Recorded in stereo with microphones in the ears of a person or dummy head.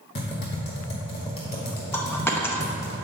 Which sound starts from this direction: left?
Typing on a keyboard, at 0.1 s.